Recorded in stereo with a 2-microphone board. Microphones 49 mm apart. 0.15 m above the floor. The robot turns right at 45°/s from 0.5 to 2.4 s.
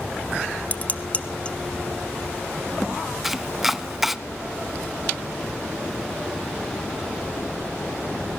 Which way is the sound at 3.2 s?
5° right (ahead or behind).